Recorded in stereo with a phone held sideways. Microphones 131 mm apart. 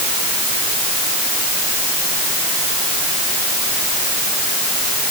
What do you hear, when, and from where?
Only background noise.